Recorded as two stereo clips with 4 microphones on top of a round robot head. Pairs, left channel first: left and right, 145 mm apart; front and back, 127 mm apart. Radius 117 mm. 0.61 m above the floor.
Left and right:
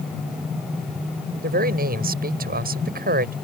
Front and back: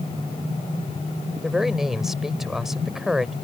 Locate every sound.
1.4 s a man speaking: 90° right